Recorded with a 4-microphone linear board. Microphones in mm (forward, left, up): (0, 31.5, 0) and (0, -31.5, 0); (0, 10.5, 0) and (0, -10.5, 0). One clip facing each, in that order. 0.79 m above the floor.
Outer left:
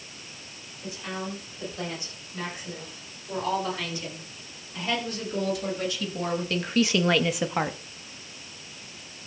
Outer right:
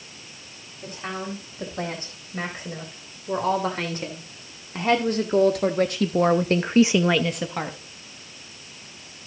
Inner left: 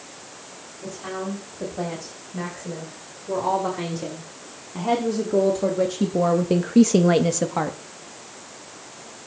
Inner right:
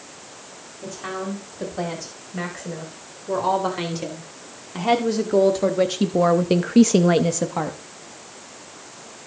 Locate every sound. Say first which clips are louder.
0.8 s a woman speaking: outer right 2 dB, inner right 1 dB; 50° right (ahead or behind), 5 m; by 7.8 s 20° left (ahead or behind), 1.0 m